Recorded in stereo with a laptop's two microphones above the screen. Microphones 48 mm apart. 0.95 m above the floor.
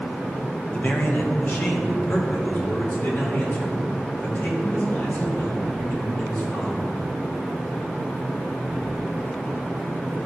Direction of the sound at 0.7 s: 30° left (ahead or behind).